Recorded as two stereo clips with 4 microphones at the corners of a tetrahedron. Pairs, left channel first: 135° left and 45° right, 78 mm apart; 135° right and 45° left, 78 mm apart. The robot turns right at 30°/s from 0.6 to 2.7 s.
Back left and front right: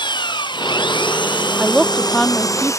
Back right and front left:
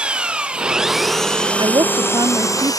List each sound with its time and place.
0.0 s an engine running: 120° left; by 2.8 s 175° right
1.6 s a woman speaking: 40° left; by 2.8 s 70° left